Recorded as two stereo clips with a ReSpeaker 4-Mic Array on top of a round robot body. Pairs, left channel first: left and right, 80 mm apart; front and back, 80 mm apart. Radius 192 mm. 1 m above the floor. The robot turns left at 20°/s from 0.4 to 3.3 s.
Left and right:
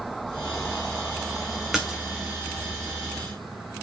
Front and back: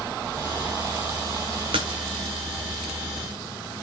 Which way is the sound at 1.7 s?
175° right.